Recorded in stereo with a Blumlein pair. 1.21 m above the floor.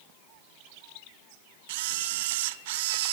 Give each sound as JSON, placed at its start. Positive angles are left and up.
{"t": 1.7, "sound": "a camera shutter", "azimuth_deg": -50, "distance_m": 0.6}